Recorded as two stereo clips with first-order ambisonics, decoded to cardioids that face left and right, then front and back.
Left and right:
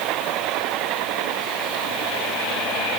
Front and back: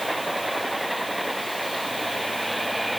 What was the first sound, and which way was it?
Only background noise.